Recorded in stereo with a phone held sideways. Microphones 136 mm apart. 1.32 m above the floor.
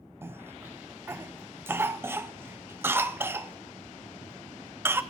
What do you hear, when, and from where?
0.2 s a cough: 15° right (ahead or behind), 0.6 m